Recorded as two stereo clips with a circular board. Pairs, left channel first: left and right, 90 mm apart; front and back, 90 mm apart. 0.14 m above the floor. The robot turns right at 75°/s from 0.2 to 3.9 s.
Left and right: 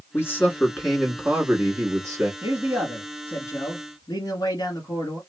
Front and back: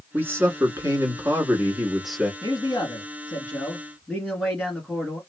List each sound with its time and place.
0.1 s a man speaking: 125° left, 1.3 m; by 2.3 s 75° right, 1.3 m
2.4 s a man speaking: 25° right, 1.8 m; by 5.2 s 85° left, 1.8 m